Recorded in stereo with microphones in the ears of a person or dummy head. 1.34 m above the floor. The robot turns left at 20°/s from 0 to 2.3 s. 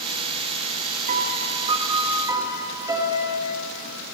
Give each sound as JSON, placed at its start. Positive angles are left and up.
{"t": 1.1, "sound": "a piano", "side_deg": -35, "distance_m": 1.1}